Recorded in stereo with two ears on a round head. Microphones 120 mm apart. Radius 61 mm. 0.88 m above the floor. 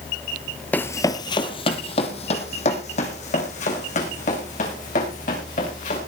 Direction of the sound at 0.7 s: 10° left (ahead or behind).